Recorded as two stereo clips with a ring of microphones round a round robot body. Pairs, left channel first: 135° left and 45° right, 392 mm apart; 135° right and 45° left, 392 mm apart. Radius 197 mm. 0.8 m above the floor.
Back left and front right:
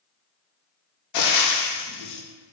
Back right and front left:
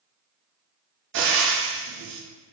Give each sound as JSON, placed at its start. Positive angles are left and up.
{"t": 1.1, "sound": "frying", "azimuth_deg": 100, "distance_m": 0.5}